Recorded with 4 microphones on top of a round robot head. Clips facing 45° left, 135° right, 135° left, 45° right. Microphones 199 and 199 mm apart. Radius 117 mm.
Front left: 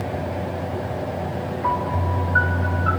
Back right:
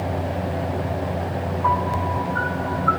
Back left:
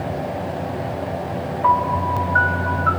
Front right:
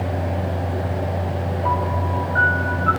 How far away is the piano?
About 4.5 m.